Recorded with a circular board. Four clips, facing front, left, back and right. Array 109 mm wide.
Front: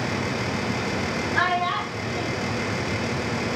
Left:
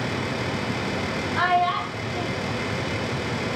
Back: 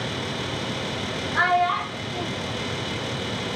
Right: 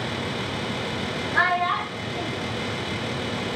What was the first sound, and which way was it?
A child speaking, 85° right.